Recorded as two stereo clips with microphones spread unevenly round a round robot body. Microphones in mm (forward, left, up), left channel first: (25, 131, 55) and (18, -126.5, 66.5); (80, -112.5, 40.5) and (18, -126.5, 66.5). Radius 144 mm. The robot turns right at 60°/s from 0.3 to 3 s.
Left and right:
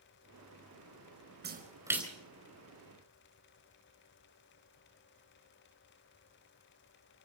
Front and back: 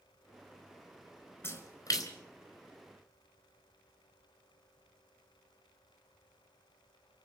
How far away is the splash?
About 4.5 m.